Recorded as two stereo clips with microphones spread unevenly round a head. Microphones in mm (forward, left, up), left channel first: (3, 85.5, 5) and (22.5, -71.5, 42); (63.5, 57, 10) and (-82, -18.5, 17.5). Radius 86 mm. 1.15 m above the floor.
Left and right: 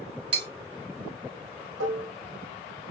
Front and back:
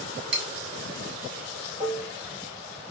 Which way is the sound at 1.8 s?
75° right.